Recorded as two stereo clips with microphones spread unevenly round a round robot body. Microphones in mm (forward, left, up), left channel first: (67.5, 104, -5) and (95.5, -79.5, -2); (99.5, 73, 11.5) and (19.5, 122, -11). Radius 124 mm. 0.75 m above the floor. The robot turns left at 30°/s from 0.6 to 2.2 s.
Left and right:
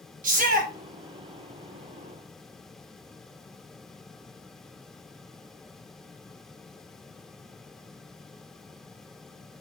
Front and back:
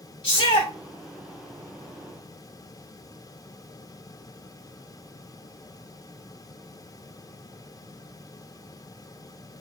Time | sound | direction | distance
0.2 | a shout | 60° right | 0.8 m